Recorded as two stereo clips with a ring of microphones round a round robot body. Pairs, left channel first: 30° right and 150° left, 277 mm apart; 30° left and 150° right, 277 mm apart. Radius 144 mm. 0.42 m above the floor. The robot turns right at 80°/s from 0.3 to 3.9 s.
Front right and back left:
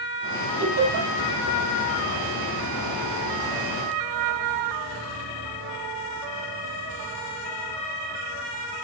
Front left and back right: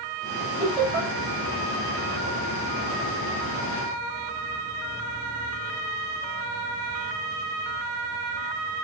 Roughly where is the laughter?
Left.